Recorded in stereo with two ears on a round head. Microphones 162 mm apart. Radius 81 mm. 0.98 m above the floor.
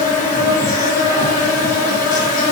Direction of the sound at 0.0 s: 45° left (ahead or behind).